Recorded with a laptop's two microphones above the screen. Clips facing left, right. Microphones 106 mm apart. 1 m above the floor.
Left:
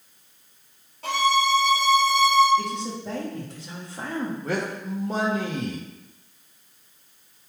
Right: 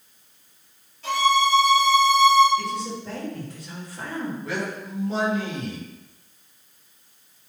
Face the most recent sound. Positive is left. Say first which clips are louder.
# left 2 dB
turn(degrees=45)  # may be behind; listen again after turning